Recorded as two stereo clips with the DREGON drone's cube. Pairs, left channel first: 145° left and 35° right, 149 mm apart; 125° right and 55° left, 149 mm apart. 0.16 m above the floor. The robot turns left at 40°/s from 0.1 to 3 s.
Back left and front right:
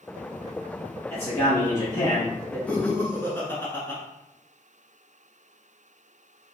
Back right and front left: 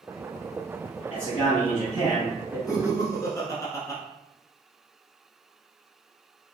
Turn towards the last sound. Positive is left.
turn(degrees=-160)